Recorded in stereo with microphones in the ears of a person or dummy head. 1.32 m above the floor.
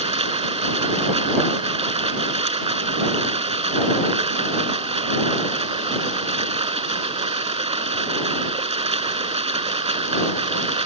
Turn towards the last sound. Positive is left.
turn(degrees=-35)  # may be behind; listen again after turning